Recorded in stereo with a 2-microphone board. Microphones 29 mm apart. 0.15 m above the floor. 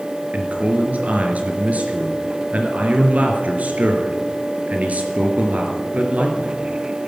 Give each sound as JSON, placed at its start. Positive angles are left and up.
{"t": 0.3, "sound": "a man speaking", "side_deg": -60, "distance_m": 3.0}